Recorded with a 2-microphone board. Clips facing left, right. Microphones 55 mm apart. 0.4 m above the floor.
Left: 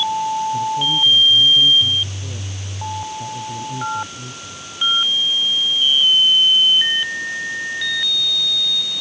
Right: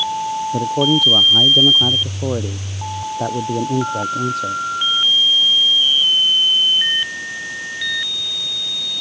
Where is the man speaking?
85° right; by 4.6 s 70° right (ahead or behind).